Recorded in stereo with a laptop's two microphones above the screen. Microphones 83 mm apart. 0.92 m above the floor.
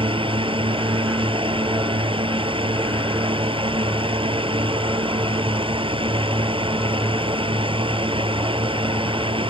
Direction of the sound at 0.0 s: 90° right.